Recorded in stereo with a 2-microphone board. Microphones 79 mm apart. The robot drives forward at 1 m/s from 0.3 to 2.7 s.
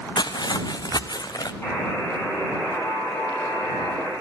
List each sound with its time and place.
0.2 s footsteps: 75° left (ahead or behind), 0.9 m; by 1.5 s 55° left (ahead or behind), 0.9 m
1.6 s a buzzer: 30° left (ahead or behind), 4.5 m; by 4.1 s 25° left (ahead or behind), 5.5 m